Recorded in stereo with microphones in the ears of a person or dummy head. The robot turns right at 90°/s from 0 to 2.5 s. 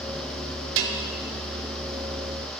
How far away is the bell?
About 0.6 m.